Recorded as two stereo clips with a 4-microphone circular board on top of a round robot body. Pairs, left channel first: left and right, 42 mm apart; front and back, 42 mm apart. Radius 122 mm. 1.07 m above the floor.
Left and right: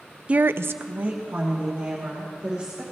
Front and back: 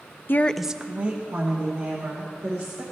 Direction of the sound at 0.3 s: 30° right.